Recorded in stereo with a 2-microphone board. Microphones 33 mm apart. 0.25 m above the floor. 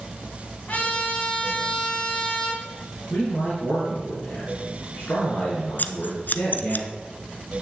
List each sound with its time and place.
0.7 s a trumpet: 50° left (ahead or behind), 2 m
3.1 s a man speaking: 65° left (ahead or behind), 4.5 m
5.8 s scissors: 65° left (ahead or behind), 0.5 m